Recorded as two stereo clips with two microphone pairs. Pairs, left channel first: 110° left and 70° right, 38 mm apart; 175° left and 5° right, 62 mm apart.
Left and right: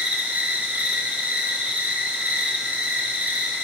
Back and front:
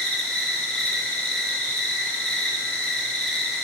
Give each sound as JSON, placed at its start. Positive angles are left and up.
{"t": 0.0, "sound": "an insect", "azimuth_deg": -105, "distance_m": 1.7}